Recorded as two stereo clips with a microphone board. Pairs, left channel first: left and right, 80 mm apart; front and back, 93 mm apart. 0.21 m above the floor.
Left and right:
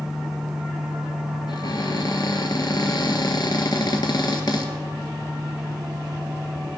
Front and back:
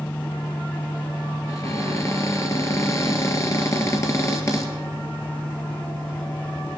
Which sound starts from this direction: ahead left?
A cupboard door, at 1.5 s.